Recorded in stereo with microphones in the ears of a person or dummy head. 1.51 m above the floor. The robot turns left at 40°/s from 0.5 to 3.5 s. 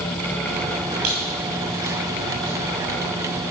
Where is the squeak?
45° right (ahead or behind), 2.5 m; by 2.5 s 15° left (ahead or behind), 2.5 m.